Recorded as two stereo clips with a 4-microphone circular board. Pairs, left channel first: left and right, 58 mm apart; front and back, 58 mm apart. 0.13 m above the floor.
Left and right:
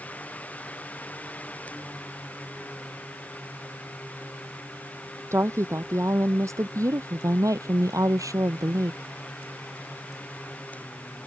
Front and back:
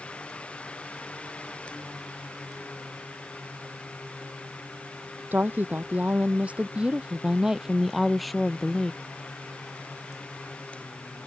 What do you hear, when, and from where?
5.3 s a woman speaking: 125° right; by 9.0 s 80° right